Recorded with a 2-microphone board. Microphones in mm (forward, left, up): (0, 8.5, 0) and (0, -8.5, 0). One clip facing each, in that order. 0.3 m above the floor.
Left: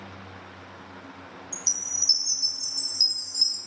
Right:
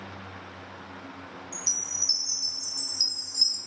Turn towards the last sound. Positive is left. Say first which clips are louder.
# left 2 dB
turn(degrees=20)  # may be behind; listen again after turning